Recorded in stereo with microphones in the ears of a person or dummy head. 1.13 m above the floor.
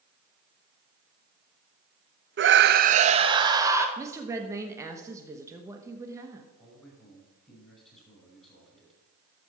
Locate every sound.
2.4 s a scream: 55° right (ahead or behind), 0.6 m; by 3.9 s 15° right (ahead or behind), 1.1 m
4.0 s a woman speaking: 20° right (ahead or behind), 1.0 m
6.6 s a man speaking: 5° left (ahead or behind), 5 m